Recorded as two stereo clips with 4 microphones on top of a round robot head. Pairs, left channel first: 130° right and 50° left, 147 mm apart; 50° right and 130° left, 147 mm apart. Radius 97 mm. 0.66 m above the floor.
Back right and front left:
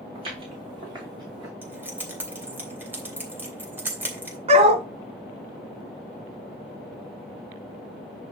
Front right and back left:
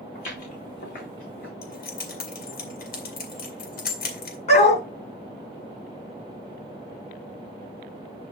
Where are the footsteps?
5° right, 4.5 m; by 1.5 s 20° right, 3.5 m.